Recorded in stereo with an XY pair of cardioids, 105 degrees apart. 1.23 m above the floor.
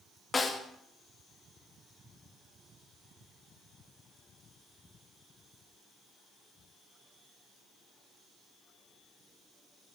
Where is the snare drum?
25° left, 1.9 m.